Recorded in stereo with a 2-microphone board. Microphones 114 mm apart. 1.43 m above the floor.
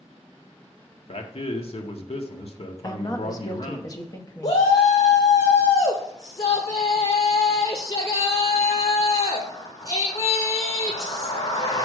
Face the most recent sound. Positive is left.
turn(degrees=60)  # may be behind; listen again after turning